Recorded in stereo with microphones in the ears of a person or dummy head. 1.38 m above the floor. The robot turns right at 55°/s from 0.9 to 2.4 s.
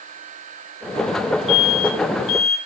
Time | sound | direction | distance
1.5 | an alarm | 5° left | 4.5 m